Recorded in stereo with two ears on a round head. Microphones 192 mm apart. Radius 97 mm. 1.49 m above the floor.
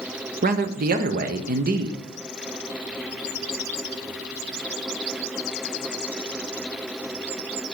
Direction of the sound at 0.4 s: 45° right (ahead or behind).